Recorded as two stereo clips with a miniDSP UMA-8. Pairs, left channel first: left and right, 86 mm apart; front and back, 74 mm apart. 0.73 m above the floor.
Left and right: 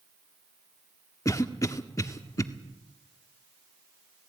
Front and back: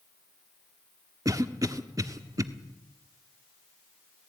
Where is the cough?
140° left, 1.4 m.